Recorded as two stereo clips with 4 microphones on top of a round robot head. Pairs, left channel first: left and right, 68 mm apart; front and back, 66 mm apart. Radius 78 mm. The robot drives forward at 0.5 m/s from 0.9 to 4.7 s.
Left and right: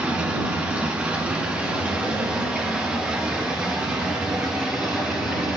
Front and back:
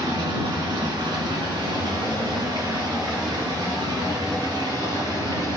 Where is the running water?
160° right, 3 m; by 5.6 s 165° right, 5 m.